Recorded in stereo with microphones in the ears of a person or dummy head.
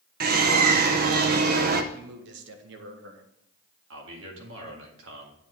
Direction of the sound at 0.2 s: 50° right (ahead or behind).